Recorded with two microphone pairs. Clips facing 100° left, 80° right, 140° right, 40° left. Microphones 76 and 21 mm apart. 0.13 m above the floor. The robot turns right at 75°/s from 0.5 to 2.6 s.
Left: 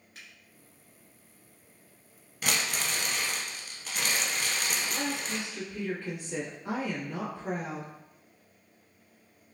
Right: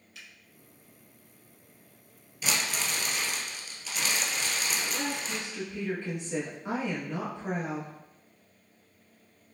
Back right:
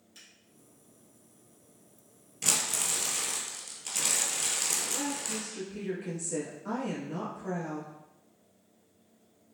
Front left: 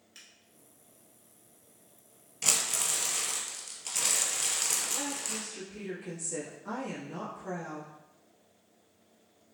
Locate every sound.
0.1 s a finger snap: 90° left, 2.0 m
2.4 s crumpling: 115° left, 1.2 m; by 5.5 s 130° left, 1.2 m
4.8 s a woman speaking: 90° right, 1.4 m